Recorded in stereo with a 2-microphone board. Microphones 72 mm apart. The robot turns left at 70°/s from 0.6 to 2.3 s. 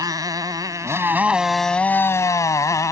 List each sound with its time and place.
0.0 s a motorcycle: 115° right; by 2.9 s 130° left